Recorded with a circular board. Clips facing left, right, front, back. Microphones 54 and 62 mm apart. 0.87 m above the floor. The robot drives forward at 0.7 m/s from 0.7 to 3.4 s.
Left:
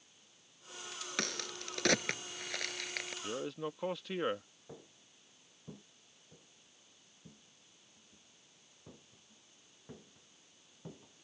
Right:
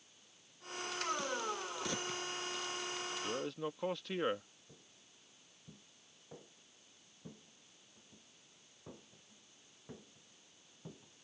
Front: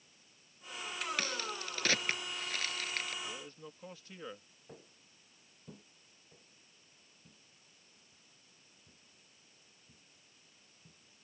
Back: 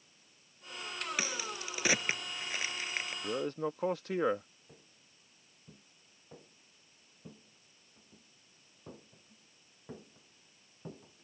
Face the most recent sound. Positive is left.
turn(degrees=160)